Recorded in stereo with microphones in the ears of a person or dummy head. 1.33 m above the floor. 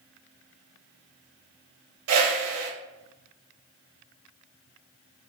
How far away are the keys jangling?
I don't hear keys jangling.